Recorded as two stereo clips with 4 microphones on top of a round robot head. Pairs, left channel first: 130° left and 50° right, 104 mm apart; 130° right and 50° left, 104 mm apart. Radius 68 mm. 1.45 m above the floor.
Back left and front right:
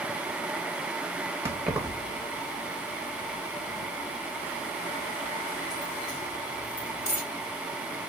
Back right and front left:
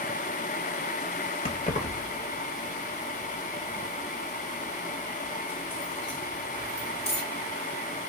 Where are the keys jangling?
110° right, 0.8 m; by 7.2 s 155° left, 3.5 m.